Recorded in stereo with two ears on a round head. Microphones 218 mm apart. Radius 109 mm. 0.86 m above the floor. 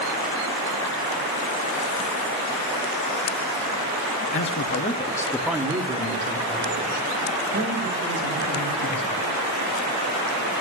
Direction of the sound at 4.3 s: 55° left (ahead or behind).